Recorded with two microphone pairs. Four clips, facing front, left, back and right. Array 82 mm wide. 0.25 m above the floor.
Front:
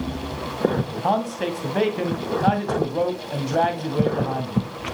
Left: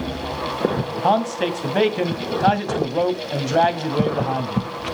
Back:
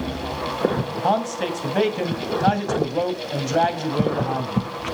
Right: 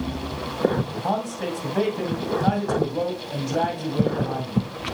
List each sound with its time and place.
1.0 s a man speaking: 100° left, 1.8 m